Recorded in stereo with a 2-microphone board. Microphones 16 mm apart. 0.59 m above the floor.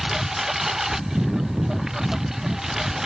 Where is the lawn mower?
25° right (ahead or behind).